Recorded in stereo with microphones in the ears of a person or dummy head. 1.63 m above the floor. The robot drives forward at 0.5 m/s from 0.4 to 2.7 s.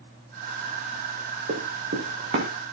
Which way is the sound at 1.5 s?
60° right (ahead or behind).